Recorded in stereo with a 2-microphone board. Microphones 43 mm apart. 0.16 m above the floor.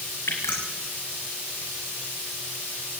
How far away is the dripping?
About 6 m.